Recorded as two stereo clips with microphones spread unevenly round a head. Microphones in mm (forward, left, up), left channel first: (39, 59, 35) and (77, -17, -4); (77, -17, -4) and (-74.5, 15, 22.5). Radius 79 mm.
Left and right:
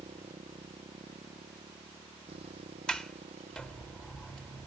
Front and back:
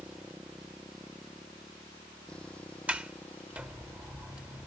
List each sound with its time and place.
0.0 s a motorcycle: 110° right; by 4.7 s 90° right
2.9 s a sliding door: 110° left